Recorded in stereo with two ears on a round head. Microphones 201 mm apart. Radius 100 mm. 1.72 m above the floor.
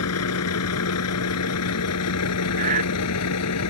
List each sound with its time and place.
0.0 s a vehicle: 80° left; by 3.7 s 85° left
2.6 s breathing: 35° right (ahead or behind)